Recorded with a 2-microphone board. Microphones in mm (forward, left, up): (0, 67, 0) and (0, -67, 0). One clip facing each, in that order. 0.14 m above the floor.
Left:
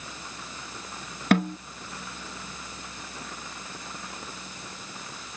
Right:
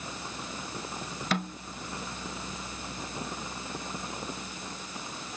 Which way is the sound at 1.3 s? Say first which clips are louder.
Left 10 dB; 55° left (ahead or behind).